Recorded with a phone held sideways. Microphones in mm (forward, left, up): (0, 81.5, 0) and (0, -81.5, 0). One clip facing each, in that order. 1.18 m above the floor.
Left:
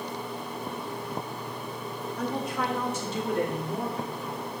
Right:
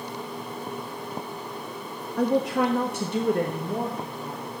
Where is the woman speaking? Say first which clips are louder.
Right 9 dB; 75° right (ahead or behind), 0.7 m; by 4.6 s 40° right (ahead or behind), 2.0 m.